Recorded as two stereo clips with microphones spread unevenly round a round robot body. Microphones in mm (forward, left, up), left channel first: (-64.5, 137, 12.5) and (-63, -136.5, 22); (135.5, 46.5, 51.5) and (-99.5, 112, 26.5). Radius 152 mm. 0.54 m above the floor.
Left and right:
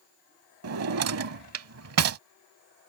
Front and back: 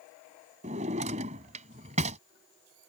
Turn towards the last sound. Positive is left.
turn(degrees=-125)